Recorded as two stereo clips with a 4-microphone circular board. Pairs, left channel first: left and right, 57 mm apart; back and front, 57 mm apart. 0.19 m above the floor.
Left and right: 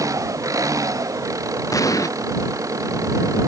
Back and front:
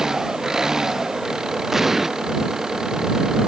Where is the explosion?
85° left.